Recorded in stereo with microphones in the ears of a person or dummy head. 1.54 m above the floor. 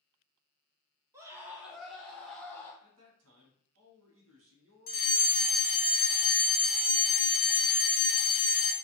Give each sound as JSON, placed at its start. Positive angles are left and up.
{"t": 1.1, "sound": "a scream", "side_deg": -20, "distance_m": 0.9}
{"t": 2.8, "sound": "a man speaking", "side_deg": -75, "distance_m": 1.0}
{"t": 4.9, "sound": "a fire alarm", "side_deg": 40, "distance_m": 0.7}